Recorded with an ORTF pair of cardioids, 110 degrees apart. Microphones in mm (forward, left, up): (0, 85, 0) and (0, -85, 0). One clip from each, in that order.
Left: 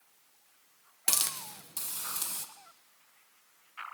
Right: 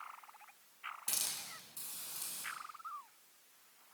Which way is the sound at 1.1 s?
70° left.